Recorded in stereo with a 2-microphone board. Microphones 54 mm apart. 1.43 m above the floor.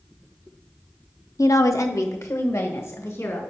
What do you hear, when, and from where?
1.4 s a woman speaking: 80° left, 0.6 m; by 3.4 s 60° left (ahead or behind), 1.9 m